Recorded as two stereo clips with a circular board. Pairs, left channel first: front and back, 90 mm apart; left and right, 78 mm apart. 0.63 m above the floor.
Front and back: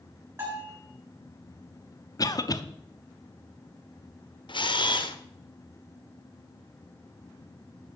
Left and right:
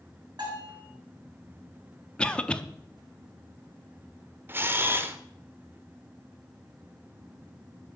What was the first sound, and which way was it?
A bell, 120° right.